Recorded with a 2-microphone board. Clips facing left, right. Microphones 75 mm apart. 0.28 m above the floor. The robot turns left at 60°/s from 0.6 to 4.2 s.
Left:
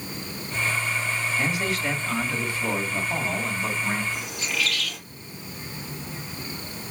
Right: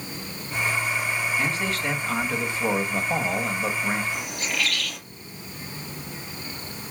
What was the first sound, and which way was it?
A man speaking, 30° left.